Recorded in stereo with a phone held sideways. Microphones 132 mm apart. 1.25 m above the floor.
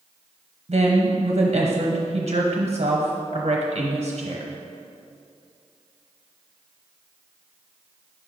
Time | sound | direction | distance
0.7 | a woman speaking | 50° right (ahead or behind) | 0.8 m